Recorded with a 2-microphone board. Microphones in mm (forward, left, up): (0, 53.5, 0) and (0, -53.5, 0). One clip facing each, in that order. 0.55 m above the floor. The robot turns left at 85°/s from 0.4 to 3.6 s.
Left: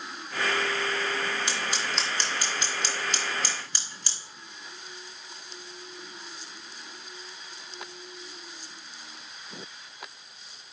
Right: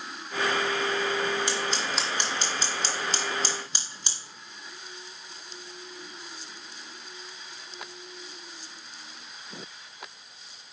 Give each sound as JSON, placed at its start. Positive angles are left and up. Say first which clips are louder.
{"t": 1.5, "sound": "scissors", "louder": "right 2 dB", "side_deg": 20, "distance_m": 1.5}